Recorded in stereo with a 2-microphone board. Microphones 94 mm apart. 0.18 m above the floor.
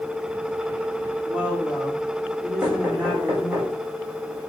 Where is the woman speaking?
20° right (ahead or behind), 7 m.